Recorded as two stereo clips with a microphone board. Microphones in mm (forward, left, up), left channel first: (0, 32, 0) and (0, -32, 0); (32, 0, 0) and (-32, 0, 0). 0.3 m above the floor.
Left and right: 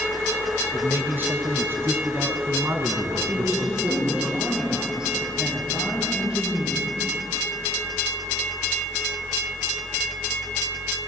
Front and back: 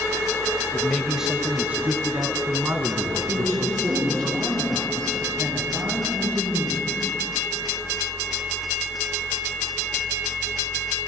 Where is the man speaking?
75° right, 1.2 m; by 4.3 s 140° right, 4 m.